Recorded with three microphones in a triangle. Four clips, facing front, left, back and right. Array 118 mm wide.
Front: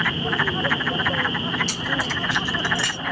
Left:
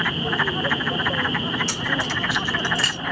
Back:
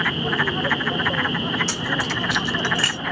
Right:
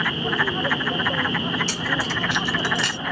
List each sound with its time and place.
1.7 s keys jangling: straight behind, 1.0 m; by 3.0 s 120° right, 0.7 m